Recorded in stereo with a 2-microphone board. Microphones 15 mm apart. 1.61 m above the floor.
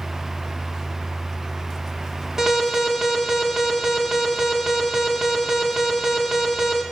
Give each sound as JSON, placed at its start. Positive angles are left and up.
{"t": 2.4, "sound": "an alarm", "side_deg": -40, "distance_m": 4.0}